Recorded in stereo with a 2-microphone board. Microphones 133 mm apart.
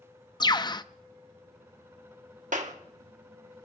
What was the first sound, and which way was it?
A bird, 30° left (ahead or behind).